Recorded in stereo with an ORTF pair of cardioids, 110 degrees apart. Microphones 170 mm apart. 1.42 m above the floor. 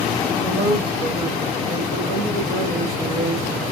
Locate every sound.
0.4 s a woman speaking: 65° right, 3.5 m; by 3.6 s 55° right, 1.6 m